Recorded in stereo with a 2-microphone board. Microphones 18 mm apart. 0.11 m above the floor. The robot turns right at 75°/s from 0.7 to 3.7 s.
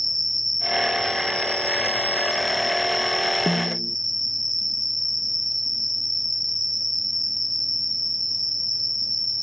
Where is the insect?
Straight ahead; by 9.4 s 135° right.